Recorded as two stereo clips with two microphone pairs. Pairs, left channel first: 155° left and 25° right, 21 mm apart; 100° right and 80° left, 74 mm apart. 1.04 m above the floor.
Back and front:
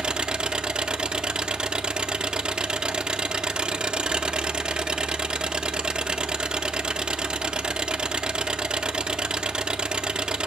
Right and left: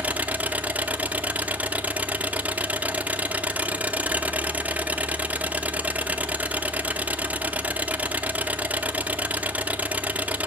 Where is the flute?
No flute in this recording.